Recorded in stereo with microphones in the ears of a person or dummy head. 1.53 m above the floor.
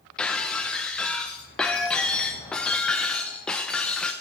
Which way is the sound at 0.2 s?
5° left (ahead or behind).